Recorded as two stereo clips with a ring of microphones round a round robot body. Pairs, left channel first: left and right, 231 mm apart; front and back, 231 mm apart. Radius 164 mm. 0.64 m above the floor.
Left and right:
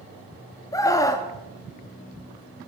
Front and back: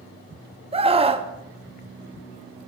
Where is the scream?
150° left, 0.9 m.